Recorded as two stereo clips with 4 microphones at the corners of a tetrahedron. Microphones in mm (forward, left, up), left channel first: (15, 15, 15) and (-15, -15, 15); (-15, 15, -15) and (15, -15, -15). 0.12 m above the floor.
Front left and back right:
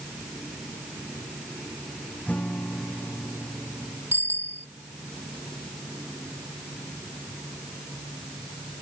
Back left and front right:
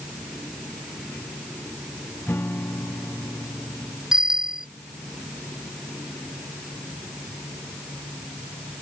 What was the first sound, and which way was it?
A guitar, 100° left.